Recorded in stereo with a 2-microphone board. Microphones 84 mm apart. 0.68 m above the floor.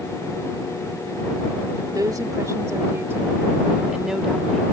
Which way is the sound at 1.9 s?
50° right (ahead or behind).